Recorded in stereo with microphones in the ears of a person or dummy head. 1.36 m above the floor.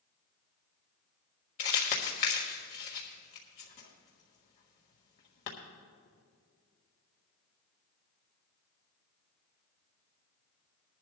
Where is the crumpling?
35° left (ahead or behind), 1.5 m.